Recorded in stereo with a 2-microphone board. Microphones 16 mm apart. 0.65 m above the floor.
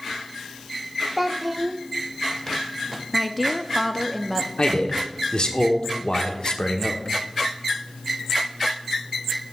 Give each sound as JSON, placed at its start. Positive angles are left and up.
{"t": 1.2, "sound": "a child speaking", "side_deg": -10, "distance_m": 0.9}
{"t": 3.1, "sound": "a woman speaking", "side_deg": 5, "distance_m": 0.5}
{"t": 4.6, "sound": "a man speaking", "side_deg": 65, "distance_m": 1.2}